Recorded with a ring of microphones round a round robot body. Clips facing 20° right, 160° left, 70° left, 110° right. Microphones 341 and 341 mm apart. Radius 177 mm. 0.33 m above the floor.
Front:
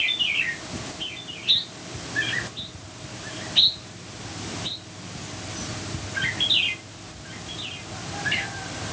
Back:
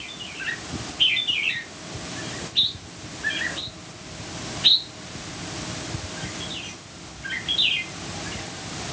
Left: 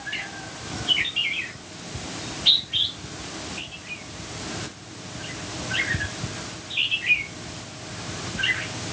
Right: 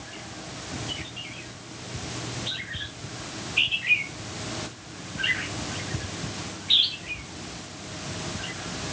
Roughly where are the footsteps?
I don't hear footsteps.